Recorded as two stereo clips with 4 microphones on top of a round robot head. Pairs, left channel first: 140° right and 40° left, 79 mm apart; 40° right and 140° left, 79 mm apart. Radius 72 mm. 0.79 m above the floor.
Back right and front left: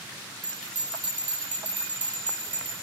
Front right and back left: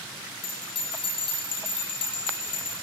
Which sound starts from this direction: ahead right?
A bell, at 0.4 s.